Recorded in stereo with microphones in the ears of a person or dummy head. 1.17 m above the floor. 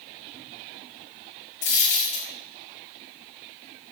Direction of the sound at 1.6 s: 40° left (ahead or behind).